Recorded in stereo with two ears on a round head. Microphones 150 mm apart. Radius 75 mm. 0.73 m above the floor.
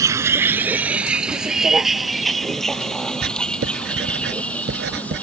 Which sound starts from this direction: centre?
A vehicle, at 0.0 s.